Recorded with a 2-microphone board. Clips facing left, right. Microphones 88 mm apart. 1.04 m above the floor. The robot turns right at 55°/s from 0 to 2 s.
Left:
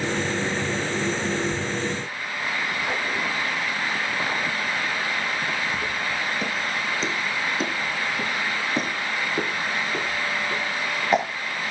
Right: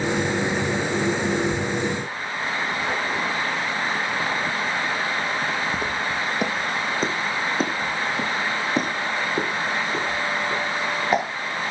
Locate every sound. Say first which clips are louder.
5.7 s footsteps: right 2 dB; 70° right (ahead or behind), 3 m; by 11.2 s centre (ahead or behind), 7 m